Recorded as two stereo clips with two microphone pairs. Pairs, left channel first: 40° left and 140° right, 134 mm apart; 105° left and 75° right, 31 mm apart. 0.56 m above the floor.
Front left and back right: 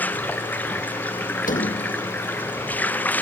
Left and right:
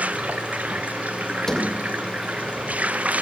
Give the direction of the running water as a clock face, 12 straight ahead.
1 o'clock.